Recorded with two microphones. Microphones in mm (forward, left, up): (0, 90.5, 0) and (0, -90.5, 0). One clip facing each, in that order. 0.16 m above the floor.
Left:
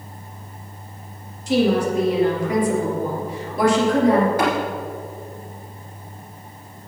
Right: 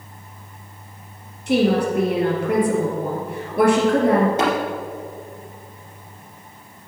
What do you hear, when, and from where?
1.5 s a woman speaking: 60° right (ahead or behind), 3.5 m
4.4 s tapping: 25° right (ahead or behind), 3 m